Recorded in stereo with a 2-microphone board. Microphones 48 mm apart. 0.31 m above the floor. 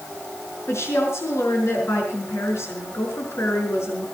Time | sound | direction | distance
0.7 | a woman speaking | 65° left (ahead or behind) | 5 m